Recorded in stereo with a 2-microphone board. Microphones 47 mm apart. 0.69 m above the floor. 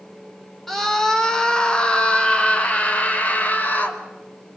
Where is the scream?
5° left (ahead or behind), 3 m; by 4.0 s 40° left (ahead or behind), 4 m.